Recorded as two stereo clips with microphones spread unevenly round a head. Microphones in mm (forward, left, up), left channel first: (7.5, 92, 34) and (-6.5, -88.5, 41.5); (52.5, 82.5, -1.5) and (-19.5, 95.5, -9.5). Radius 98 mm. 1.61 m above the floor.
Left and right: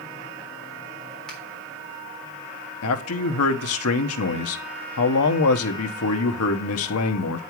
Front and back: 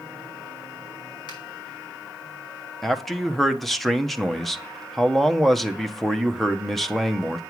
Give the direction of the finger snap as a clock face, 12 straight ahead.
12 o'clock.